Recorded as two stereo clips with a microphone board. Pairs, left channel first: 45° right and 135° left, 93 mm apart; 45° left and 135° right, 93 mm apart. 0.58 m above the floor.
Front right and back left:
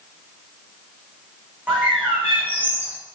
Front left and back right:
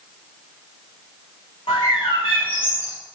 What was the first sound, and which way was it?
A bird, 65° left.